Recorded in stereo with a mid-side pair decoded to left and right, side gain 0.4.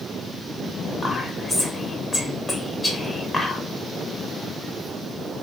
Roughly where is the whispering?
Ahead left.